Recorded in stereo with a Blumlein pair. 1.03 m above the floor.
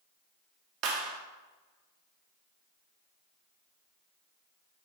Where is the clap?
35° right, 1.7 m.